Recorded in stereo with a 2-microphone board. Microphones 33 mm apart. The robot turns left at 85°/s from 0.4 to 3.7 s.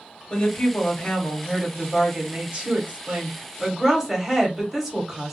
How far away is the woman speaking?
About 1.1 m.